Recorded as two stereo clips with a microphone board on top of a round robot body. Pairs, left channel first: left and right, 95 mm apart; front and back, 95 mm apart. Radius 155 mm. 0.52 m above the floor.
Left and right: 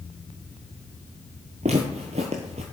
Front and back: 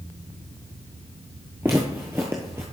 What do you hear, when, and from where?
1.6 s footsteps: 110° right, 0.6 m